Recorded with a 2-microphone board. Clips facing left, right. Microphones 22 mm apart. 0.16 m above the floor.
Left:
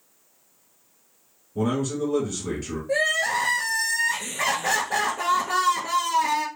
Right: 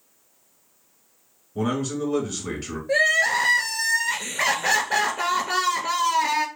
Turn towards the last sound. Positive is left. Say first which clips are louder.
# right 3 dB
turn(degrees=-35)  # may be behind; listen again after turning